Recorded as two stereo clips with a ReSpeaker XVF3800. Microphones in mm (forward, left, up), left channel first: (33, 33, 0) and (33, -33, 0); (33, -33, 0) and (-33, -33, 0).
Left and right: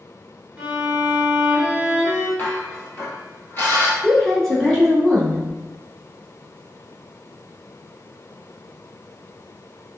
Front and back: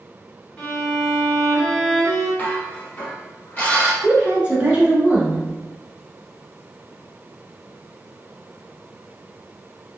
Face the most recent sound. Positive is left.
turn(degrees=165)